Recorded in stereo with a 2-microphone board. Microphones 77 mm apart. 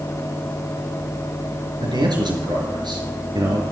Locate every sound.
1.8 s a man speaking: 75° right (ahead or behind), 5 m